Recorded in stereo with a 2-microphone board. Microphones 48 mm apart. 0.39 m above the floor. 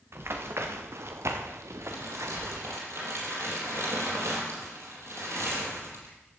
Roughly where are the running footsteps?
Right.